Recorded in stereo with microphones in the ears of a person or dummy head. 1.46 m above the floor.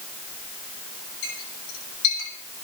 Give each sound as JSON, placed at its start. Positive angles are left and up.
{"t": 1.2, "sound": "a clink", "side_deg": 85, "distance_m": 7.0}